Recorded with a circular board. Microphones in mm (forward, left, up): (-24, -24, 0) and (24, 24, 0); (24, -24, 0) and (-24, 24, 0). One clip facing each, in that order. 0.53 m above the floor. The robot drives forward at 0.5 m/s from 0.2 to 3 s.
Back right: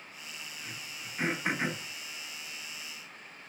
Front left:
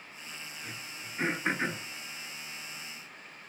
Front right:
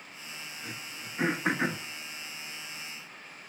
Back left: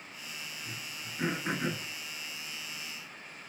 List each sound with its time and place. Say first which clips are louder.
0.6 s throat clearing: front left 1 dB, front right 1 dB; 50° right, 2.5 m; by 1.8 s 60° right, 1.9 m